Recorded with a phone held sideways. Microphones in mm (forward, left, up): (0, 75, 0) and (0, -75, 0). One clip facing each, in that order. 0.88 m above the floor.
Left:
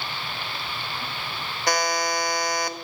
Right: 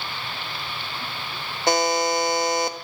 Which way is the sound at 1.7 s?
25° right (ahead or behind).